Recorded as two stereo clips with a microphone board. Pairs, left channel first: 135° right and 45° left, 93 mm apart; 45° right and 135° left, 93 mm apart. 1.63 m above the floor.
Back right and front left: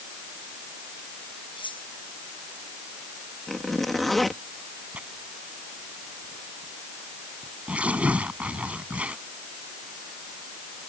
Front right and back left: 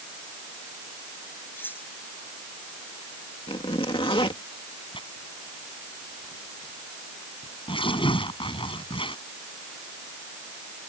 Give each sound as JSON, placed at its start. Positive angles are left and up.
{"t": 1.6, "sound": "cutlery clinking", "azimuth_deg": -110}
{"t": 3.5, "sound": "a zipper", "azimuth_deg": -45}
{"t": 4.9, "sound": "tearing paper", "azimuth_deg": -30}